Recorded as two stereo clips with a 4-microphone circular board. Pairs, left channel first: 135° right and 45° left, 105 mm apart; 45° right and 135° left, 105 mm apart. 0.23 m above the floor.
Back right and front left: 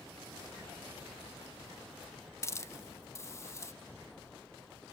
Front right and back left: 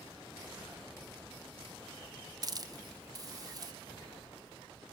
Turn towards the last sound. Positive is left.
turn(degrees=170)